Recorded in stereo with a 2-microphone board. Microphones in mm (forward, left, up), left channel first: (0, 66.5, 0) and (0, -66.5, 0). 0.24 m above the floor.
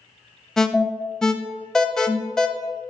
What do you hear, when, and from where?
0.6 s an alarm: 5° left (ahead or behind), 0.6 m